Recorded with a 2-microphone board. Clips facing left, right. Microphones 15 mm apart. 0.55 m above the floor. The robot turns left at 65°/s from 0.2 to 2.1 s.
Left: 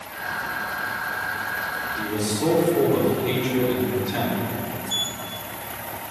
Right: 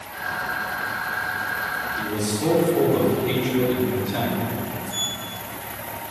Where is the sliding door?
50° left (ahead or behind), 0.6 m.